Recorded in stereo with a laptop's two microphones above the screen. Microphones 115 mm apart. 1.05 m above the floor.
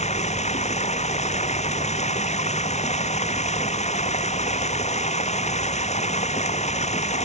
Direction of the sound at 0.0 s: 80° left.